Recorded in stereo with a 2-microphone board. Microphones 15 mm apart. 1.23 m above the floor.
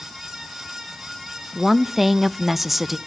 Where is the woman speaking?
10° right (ahead or behind), 0.7 m.